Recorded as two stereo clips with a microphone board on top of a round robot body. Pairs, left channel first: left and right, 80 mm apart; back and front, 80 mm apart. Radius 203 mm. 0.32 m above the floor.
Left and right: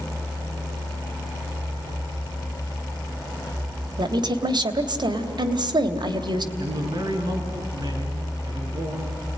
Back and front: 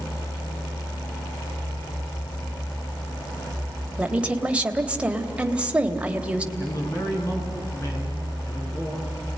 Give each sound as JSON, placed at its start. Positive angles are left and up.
{"t": 4.0, "sound": "a woman speaking", "azimuth_deg": -75, "distance_m": 2.5}
{"t": 6.6, "sound": "a man speaking", "azimuth_deg": -125, "distance_m": 6.5}